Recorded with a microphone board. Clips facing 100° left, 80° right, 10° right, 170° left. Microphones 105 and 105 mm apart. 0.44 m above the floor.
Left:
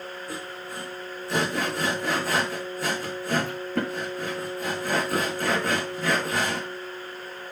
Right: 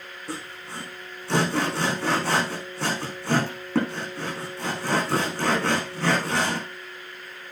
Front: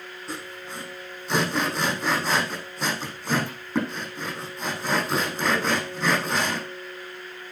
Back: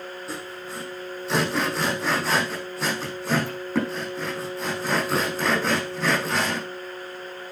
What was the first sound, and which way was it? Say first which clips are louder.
Sawing: left 1 dB, front 2 dB; 100° right.